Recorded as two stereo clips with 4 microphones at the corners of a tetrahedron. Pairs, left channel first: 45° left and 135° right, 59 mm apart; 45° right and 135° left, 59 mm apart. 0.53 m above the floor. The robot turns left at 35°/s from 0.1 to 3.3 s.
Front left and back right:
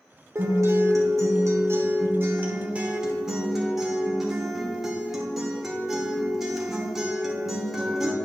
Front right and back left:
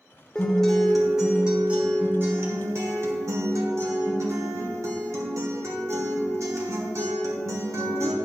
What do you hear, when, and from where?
0.3 s a guitar: 115° right, 1.3 m; by 8.1 s 140° left, 1.3 m